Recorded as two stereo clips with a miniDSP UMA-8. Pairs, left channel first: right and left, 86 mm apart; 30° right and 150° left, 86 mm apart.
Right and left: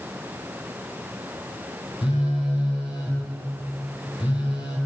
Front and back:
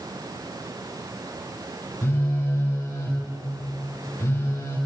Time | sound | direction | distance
2.0 | a phone buzzing | 90° right | 10 m